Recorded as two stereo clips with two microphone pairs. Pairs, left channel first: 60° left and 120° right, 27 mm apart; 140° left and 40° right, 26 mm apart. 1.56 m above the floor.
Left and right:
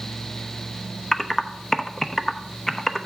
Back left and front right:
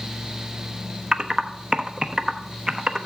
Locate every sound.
1.1 s typing on a keyboard: straight ahead, 1.0 m